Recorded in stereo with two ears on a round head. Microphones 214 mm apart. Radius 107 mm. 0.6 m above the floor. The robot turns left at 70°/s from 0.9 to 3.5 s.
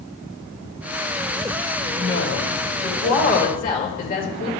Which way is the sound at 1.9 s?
145° left.